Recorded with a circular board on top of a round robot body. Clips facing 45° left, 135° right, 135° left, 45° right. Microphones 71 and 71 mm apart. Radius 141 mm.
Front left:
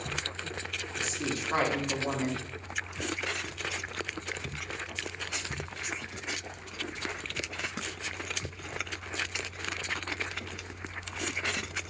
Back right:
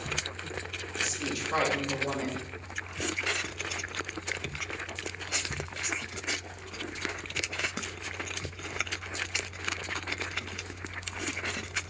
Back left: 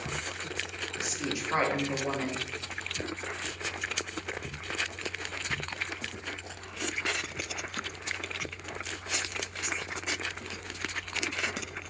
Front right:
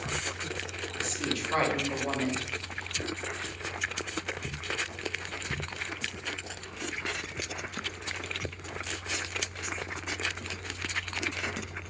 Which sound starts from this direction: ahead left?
A woman speaking, at 1.0 s.